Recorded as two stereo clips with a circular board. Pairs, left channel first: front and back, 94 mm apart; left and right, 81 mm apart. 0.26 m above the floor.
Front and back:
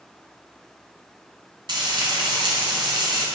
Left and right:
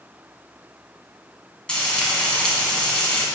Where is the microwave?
I don't hear a microwave.